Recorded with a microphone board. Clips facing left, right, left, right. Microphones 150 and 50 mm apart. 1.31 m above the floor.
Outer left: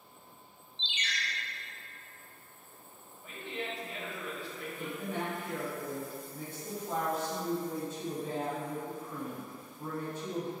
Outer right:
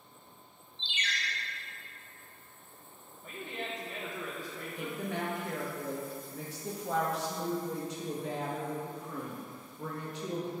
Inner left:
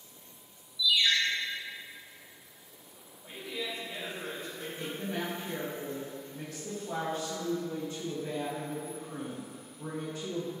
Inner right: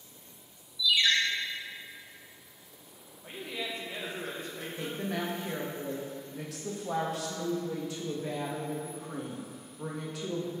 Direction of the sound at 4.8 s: 80° right.